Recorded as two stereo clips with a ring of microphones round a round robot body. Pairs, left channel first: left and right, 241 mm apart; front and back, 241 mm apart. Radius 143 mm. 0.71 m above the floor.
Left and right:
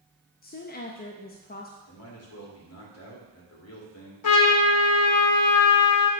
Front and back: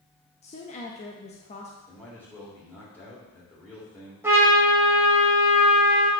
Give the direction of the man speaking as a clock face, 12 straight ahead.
9 o'clock.